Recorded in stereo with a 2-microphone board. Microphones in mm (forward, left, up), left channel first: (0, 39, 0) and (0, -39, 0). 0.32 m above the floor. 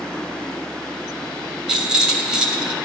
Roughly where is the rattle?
Centre.